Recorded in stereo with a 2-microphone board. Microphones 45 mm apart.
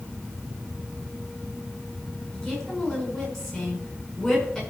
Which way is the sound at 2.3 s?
5° left (ahead or behind).